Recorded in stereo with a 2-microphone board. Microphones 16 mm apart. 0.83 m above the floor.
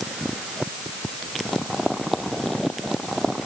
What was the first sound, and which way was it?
Only background noise.